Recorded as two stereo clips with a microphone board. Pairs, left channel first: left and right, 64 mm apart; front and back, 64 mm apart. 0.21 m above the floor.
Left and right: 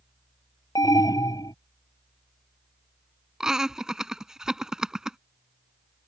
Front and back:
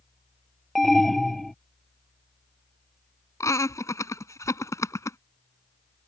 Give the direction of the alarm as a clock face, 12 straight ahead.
9 o'clock.